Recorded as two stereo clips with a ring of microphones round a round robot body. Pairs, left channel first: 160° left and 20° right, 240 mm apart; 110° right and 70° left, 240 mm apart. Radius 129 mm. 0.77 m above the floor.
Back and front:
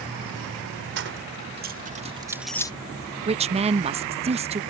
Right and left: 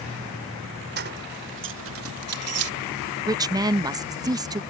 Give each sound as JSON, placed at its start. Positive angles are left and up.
{"t": 1.0, "sound": "keys jangling", "azimuth_deg": 20}
{"t": 3.3, "sound": "a woman speaking", "azimuth_deg": 10}